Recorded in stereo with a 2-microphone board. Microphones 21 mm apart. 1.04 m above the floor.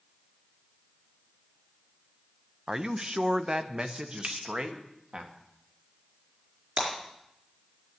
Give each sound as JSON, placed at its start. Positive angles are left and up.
{"t": 2.7, "sound": "a man speaking", "side_deg": -30, "distance_m": 0.6}
{"t": 4.2, "sound": "a finger snap", "side_deg": -50, "distance_m": 2.0}
{"t": 6.8, "sound": "breaking glass", "side_deg": -55, "distance_m": 4.0}